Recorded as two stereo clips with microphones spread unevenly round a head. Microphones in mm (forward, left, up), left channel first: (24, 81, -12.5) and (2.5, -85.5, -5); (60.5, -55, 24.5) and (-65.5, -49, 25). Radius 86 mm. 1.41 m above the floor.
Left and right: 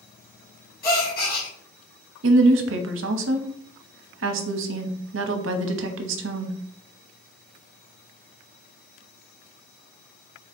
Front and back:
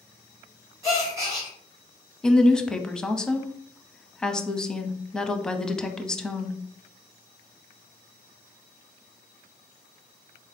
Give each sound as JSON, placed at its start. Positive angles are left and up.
{"t": 0.8, "sound": "a gasp", "azimuth_deg": 110, "distance_m": 1.5}
{"t": 2.2, "sound": "a woman speaking", "azimuth_deg": -90, "distance_m": 0.7}